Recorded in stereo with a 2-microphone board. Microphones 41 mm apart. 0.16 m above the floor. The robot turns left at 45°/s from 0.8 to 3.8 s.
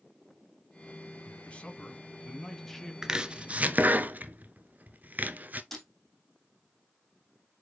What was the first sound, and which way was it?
A man speaking, 80° left.